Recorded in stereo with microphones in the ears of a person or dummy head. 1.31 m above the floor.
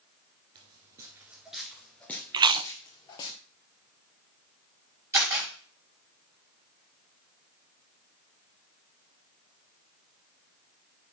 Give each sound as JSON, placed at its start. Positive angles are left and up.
{"t": 0.6, "sound": "footsteps", "side_deg": -25, "distance_m": 1.4}
{"t": 2.3, "sound": "chewing", "side_deg": -20, "distance_m": 0.5}
{"t": 5.1, "sound": "a camera shutter", "side_deg": -15, "distance_m": 6.0}